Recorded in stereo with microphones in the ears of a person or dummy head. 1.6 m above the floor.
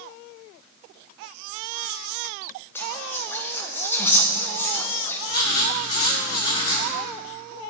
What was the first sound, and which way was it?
Whispering, 10° left (ahead or behind).